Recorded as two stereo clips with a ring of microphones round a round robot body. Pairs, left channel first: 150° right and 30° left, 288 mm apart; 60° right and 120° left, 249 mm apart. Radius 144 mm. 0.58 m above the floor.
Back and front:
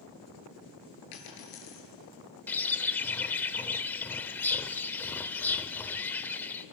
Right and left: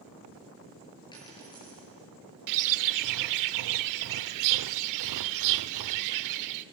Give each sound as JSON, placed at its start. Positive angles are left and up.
{"t": 1.1, "sound": "a dropped coin", "azimuth_deg": -135, "distance_m": 5.0}
{"t": 2.5, "sound": "a bird", "azimuth_deg": 125, "distance_m": 0.5}